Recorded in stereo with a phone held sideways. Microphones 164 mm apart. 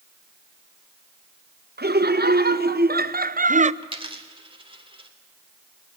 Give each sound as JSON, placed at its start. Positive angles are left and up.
{"t": 1.8, "sound": "laughter", "side_deg": -75, "distance_m": 1.5}
{"t": 3.8, "sound": "a dropped coin", "side_deg": -30, "distance_m": 1.5}